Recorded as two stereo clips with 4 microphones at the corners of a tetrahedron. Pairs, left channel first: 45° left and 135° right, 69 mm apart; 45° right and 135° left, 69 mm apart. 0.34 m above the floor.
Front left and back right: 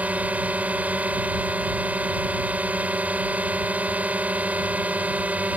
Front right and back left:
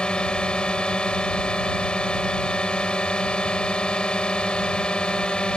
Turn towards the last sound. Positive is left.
turn(degrees=-100)